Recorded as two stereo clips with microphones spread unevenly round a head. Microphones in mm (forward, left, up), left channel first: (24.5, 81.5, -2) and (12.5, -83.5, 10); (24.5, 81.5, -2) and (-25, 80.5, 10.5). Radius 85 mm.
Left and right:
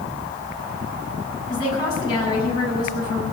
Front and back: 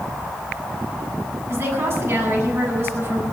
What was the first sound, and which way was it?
A woman speaking, 150° left.